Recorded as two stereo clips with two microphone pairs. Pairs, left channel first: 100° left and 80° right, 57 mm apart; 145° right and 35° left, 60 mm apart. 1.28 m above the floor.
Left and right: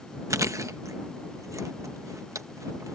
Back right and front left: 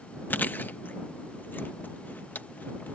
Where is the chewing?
90° right.